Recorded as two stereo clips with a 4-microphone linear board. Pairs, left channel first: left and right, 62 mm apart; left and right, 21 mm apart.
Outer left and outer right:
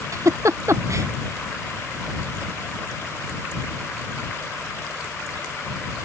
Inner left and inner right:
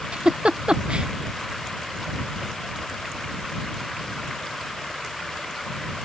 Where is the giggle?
55° right (ahead or behind).